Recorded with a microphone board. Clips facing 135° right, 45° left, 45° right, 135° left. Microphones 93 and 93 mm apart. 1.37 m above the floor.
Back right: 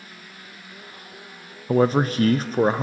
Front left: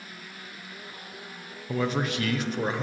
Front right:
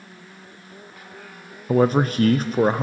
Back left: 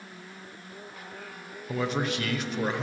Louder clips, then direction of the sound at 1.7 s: Back right 9 dB, front right 11 dB; 90° right.